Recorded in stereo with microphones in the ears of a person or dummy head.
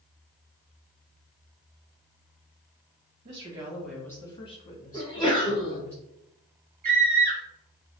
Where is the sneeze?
20° left (ahead or behind), 1.1 m.